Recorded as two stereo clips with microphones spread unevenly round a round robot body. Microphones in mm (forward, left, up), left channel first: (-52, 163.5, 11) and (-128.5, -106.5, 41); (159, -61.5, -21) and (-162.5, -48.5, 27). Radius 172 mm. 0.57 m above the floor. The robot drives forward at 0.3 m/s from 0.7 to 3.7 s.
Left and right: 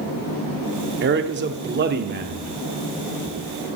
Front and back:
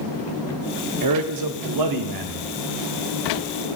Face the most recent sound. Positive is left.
turn(degrees=-165)